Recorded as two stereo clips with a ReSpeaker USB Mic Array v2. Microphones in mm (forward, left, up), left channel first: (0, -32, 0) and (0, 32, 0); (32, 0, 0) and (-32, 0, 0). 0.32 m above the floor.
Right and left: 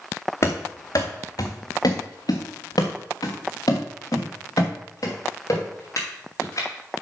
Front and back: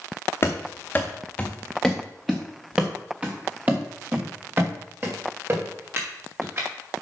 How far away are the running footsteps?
About 1.6 m.